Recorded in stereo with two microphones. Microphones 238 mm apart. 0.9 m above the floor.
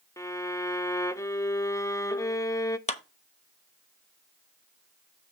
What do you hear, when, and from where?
0.2 s a violin: 15° left (ahead or behind), 0.5 m
2.9 s a clap: 30° left (ahead or behind), 0.8 m